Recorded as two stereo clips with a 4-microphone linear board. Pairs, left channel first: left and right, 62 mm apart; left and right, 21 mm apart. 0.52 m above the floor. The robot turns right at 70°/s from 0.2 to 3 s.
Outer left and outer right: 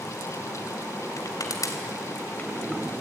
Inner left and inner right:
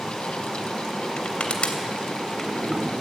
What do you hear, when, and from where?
1.2 s crushing: 60° left (ahead or behind), 2.5 m; by 2.8 s 5° right (ahead or behind), 2.5 m